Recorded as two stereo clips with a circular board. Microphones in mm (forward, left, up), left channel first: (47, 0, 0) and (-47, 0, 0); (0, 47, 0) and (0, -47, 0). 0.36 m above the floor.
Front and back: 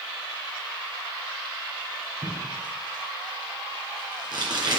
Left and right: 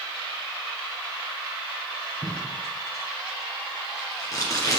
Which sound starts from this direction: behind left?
Tape being pulled, at 2.2 s.